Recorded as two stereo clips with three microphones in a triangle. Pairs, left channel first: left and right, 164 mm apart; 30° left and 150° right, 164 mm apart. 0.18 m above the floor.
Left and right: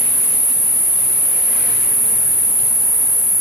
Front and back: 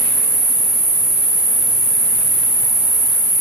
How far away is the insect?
About 1.6 m.